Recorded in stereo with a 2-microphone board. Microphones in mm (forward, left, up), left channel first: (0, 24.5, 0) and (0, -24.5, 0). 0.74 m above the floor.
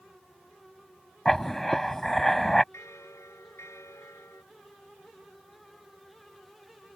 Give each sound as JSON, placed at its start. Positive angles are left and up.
{"t": 1.2, "sound": "writing", "side_deg": 5}
{"t": 2.7, "sound": "a bell", "side_deg": 80}